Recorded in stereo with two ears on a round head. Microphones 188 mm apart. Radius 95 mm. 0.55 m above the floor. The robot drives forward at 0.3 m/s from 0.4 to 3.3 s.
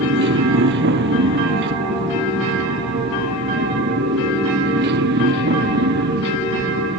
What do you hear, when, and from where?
0.0 s a motorcycle: 60° right (ahead or behind); by 7.0 s 55° right (ahead or behind)